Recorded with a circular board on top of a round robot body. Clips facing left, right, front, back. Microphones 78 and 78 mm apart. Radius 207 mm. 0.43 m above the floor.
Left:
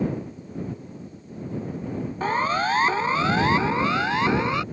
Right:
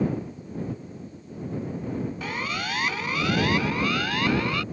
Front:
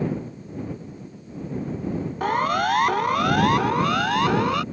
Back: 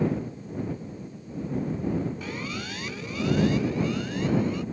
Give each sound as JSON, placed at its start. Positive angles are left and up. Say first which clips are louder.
{"t": 2.2, "sound": "a siren", "louder": "left 8 dB, front 13 dB", "azimuth_deg": 35}